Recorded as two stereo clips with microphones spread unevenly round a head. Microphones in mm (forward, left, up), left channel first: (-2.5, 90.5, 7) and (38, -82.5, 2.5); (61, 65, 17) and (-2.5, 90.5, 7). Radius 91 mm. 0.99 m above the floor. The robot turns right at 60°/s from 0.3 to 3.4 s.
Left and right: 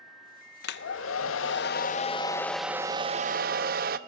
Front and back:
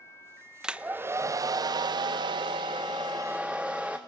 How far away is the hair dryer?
About 0.6 m.